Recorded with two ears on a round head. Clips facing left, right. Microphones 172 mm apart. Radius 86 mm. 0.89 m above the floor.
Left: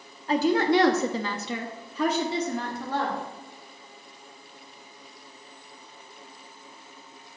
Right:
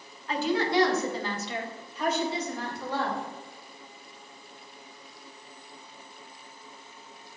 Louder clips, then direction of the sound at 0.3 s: Left 5 dB; 30° left (ahead or behind).